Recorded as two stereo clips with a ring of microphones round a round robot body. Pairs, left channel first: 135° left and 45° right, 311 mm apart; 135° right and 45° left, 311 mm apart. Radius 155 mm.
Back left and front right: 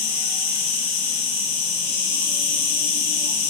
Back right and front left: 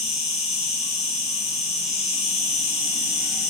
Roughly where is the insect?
Behind left.